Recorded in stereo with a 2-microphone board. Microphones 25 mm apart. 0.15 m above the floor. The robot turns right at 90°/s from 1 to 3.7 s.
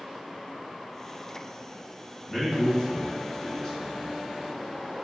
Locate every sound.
2.3 s a man speaking: 10° left (ahead or behind), 1.4 m